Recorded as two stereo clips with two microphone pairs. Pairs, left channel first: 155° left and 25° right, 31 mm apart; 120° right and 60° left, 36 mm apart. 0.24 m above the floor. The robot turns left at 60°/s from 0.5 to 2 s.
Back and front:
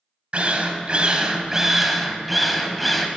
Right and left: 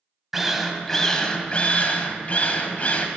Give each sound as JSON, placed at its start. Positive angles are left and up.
{"t": 0.3, "sound": "a drill", "azimuth_deg": -25, "distance_m": 0.7}